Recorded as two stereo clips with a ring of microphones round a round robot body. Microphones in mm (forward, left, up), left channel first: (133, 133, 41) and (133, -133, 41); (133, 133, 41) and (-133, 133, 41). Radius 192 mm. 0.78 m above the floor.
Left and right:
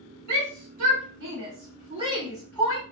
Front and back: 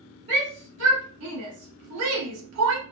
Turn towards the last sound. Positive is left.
turn(degrees=160)